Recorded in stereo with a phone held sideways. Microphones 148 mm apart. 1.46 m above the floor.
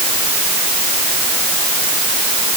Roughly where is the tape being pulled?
I don't hear tape being pulled.